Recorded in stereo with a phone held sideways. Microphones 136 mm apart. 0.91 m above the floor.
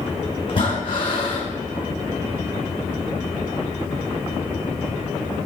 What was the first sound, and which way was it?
Breathing, 40° left (ahead or behind).